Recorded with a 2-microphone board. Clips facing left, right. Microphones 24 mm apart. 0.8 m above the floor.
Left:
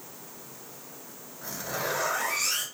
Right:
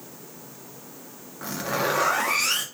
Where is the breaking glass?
I don't hear breaking glass.